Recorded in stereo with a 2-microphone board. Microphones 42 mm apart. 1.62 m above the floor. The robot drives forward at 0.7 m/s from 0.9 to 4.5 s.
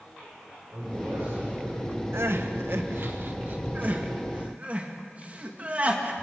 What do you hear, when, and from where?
0.7 s a man speaking: 65° right (ahead or behind), 8 m; by 2.0 s 70° right (ahead or behind), 7.5 m
2.1 s crying: 80° right, 1.4 m; by 6.1 s 35° right (ahead or behind), 2.5 m